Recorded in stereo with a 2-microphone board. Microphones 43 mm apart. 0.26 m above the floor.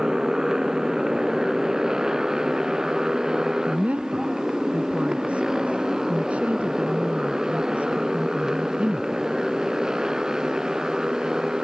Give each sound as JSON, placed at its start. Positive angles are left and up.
{"t": 0.0, "sound": "a motorcycle", "side_deg": -15}
{"t": 3.7, "sound": "a woman speaking", "side_deg": -35}